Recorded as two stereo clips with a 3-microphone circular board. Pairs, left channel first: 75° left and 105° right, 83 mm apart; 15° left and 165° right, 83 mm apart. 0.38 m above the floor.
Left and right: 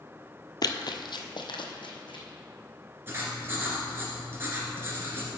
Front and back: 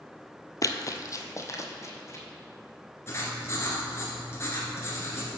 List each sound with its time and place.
0.6 s running footsteps: 50° left, 0.6 m; by 2.2 s 70° left, 1.4 m
3.1 s writing: 45° right, 1.7 m